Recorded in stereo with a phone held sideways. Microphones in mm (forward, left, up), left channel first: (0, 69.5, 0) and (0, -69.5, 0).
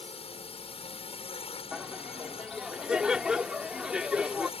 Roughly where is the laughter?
Centre.